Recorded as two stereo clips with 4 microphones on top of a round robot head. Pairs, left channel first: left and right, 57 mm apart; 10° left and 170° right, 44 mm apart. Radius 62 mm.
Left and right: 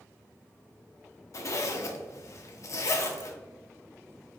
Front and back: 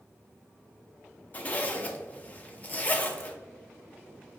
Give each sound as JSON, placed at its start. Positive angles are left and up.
{"t": 1.3, "sound": "a zipper", "azimuth_deg": 65, "distance_m": 0.6}